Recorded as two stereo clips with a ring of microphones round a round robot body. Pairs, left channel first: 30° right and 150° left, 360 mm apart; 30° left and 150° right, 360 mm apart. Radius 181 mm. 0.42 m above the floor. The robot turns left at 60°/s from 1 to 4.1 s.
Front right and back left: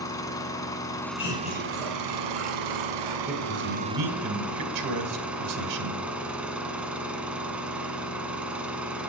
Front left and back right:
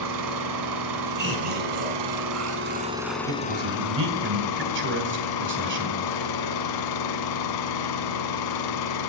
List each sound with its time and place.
0.0 s an engine running: 110° right, 1.3 m; by 9.1 s 65° left, 1.3 m
1.2 s laughter: 85° right, 5 m; by 3.2 s 155° left, 5 m
3.3 s a man speaking: 150° right, 1.9 m; by 6.0 s 160° left, 1.9 m